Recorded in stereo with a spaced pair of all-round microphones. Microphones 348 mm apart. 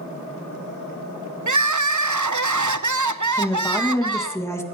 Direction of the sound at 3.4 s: 10° left (ahead or behind).